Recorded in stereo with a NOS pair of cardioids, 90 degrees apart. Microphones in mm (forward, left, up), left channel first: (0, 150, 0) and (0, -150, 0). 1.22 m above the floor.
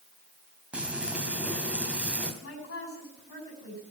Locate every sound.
0.7 s frying: 5° right, 3 m
2.4 s a woman speaking: 45° left, 8.5 m